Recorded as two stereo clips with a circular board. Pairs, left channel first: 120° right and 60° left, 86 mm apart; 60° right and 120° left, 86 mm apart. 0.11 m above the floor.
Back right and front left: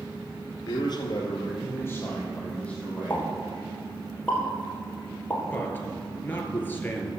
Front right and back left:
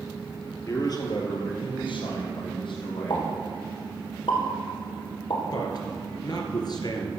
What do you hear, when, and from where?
0.7 s a man speaking: 105° right, 2 m; by 3.5 s 35° right, 4.5 m
3.1 s a pop: 50° right, 3 m
5.5 s a man speaking: 60° right, 2 m